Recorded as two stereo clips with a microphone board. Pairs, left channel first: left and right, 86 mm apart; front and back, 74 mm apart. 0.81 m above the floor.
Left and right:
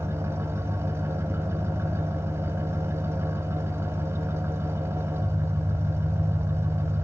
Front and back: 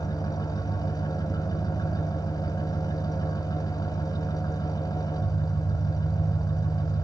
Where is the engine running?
30° right, 1.7 m.